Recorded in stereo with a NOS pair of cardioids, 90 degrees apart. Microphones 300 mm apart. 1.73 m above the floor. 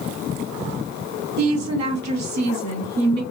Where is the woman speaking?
65° right, 1.4 m.